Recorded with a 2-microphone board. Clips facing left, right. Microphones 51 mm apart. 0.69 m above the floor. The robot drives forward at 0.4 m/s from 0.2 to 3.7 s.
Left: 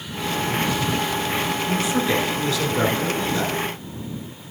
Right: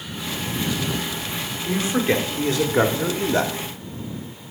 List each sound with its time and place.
1.6 s a man speaking: 30° right (ahead or behind), 1.5 m; by 3.5 s 50° right (ahead or behind), 1.0 m